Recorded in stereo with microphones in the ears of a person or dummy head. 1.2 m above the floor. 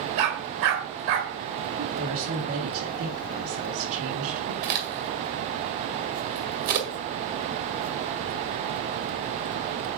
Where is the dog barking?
70° right (ahead or behind), 1.9 m.